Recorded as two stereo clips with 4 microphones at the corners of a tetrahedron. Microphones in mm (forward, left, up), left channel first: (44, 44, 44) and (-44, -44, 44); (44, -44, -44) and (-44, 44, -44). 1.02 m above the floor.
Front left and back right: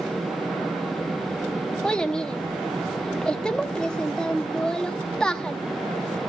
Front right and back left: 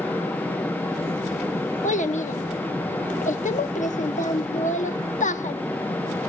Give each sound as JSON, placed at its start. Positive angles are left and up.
{"t": 1.8, "sound": "a child speaking", "azimuth_deg": -40, "distance_m": 1.1}